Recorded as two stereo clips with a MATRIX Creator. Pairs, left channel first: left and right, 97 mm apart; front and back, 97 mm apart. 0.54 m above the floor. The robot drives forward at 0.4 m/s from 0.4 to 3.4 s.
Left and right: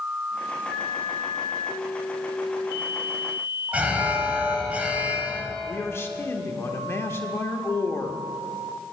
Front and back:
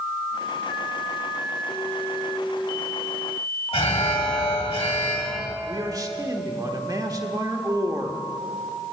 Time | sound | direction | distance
3.7 | an alarm | 15° right | 1.6 m
5.7 | a man speaking | 145° left | 1.2 m